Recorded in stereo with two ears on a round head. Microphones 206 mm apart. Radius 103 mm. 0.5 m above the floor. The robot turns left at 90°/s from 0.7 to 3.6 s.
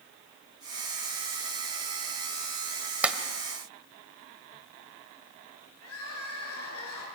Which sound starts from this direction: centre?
A clap, at 3.0 s.